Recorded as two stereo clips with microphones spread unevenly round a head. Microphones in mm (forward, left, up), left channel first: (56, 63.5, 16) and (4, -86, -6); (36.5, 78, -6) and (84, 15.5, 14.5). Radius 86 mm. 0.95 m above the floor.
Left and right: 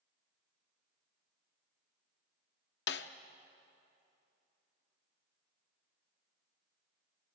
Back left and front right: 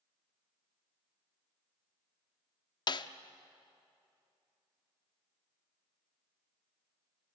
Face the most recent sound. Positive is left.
turn(degrees=95)